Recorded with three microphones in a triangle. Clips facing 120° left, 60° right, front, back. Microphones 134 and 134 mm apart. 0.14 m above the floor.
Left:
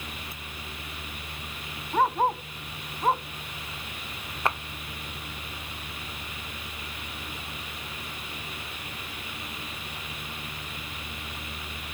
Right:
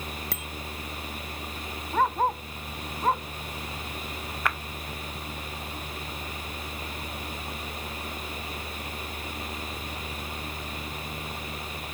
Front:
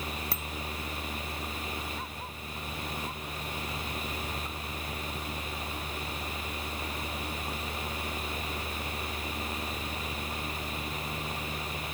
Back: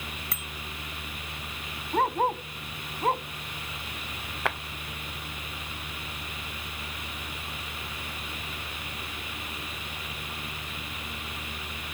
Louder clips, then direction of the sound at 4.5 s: Left 3 dB, back 10 dB; 175° right.